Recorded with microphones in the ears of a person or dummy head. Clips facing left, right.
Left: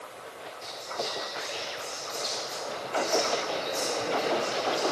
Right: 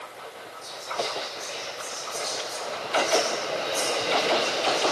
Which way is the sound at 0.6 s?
15° left (ahead or behind).